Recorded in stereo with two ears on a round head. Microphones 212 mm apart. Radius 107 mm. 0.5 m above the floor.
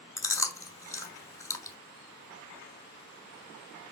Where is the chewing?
15° left (ahead or behind), 1.2 m.